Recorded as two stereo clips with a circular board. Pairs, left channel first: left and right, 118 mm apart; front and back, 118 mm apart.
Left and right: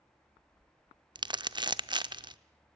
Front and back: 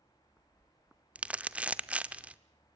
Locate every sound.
1.1 s crumpling: 105° right, 0.6 m